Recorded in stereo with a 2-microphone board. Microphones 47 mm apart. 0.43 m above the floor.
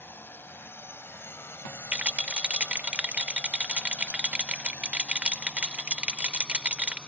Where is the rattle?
30° right (ahead or behind).